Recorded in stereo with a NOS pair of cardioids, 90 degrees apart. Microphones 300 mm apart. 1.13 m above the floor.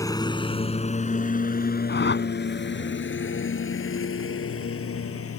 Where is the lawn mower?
10° left; by 5.4 s 50° left.